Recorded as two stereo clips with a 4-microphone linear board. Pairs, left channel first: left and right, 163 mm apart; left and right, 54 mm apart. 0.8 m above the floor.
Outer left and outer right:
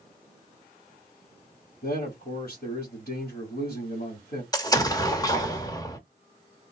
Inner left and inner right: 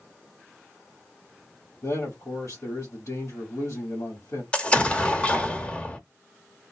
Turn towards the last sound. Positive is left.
turn(degrees=20)  # may be behind; listen again after turning